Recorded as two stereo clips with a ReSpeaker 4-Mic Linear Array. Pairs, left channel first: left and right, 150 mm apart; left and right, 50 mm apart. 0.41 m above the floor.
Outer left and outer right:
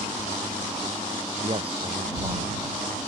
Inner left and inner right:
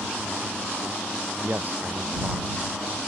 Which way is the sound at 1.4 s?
40° right (ahead or behind).